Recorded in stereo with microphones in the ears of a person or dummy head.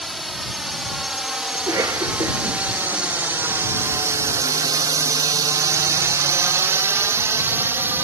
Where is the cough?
15° right (ahead or behind).